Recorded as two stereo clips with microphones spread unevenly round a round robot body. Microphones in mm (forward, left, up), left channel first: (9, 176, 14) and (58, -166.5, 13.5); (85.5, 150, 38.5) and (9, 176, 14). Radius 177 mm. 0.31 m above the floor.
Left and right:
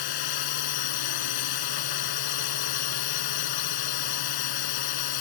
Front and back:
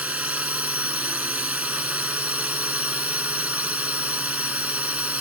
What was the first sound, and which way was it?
A drone, 90° left.